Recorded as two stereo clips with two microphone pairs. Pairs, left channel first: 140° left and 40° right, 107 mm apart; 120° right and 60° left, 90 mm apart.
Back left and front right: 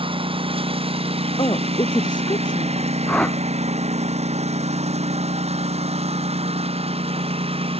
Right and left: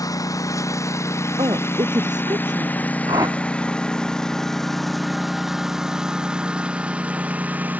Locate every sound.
0.0 s a lawn mower: 75° right; by 7.8 s 15° right
1.4 s a woman speaking: 95° left
3.1 s a whoosh: 65° left